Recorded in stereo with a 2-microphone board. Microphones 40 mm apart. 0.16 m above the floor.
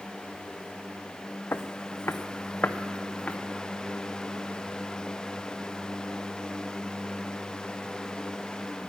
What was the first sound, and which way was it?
Footsteps, 80° left.